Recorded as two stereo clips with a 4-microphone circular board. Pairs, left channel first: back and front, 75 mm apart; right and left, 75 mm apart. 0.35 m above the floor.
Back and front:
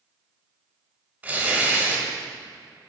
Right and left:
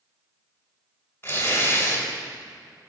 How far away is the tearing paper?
About 1.7 m.